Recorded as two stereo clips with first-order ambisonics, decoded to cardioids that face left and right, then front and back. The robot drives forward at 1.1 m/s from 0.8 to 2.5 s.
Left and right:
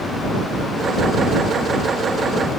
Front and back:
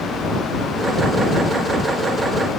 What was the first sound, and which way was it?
Only background noise.